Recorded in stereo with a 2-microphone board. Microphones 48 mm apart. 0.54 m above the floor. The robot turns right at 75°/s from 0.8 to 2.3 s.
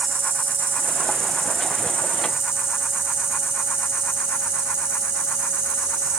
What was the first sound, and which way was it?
An insect, 135° right.